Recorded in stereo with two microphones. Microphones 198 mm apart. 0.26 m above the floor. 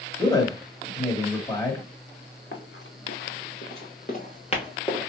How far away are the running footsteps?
About 1.6 m.